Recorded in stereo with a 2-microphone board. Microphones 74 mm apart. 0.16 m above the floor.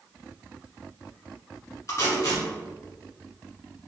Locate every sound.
1.9 s tape being pulled: 45° left (ahead or behind), 1.4 m